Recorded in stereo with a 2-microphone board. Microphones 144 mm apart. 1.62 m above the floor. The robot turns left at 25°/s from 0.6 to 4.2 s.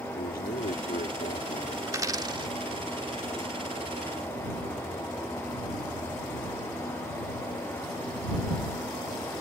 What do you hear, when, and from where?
0.1 s a man speaking: 90° left; by 1.8 s 60° left (ahead or behind)
1.9 s a dropped coin: 20° right (ahead or behind); by 2.5 s 35° right (ahead or behind)